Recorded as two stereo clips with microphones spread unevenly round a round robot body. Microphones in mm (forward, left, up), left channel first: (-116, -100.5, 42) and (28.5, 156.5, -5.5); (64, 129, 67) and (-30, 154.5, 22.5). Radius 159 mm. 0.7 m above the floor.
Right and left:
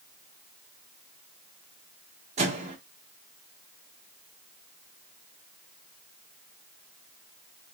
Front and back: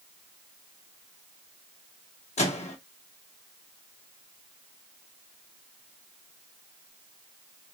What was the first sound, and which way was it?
A microwave, 5° left.